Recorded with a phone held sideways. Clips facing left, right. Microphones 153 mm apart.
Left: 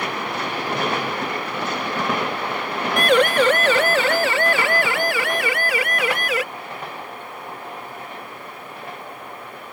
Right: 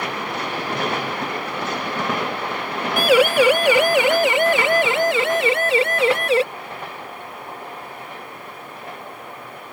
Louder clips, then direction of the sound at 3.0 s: Right 2 dB; 5° right (ahead or behind).